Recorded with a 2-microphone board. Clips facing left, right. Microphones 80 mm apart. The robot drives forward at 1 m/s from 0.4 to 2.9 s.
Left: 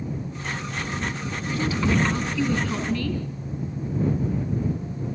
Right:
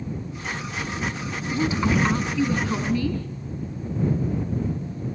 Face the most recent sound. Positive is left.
turn(degrees=-15)  # may be behind; listen again after turning